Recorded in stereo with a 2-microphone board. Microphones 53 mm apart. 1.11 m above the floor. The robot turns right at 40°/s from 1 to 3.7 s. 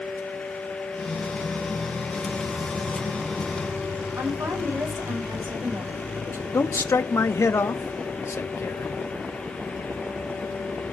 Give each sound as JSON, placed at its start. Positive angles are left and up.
{"t": 4.2, "sound": "a woman speaking", "side_deg": -75, "distance_m": 6.0}
{"t": 6.5, "sound": "a man speaking", "side_deg": 70, "distance_m": 1.3}